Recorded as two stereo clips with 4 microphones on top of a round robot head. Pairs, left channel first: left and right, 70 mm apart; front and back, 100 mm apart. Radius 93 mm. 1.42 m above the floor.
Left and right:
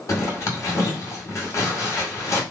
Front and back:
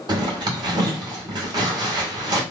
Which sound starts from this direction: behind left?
A zipper, at 0.1 s.